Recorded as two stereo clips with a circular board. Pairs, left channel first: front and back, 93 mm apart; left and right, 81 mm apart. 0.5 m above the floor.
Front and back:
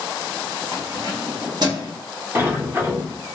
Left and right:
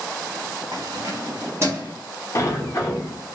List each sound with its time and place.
0.7 s keys jangling: 130° right, 0.8 m; by 1.9 s 150° right, 1.4 m
2.4 s a sliding door: 125° left, 0.8 m